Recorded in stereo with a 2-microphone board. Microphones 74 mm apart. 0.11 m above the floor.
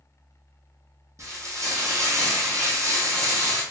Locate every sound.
1.2 s frying: 50° right (ahead or behind), 1.3 m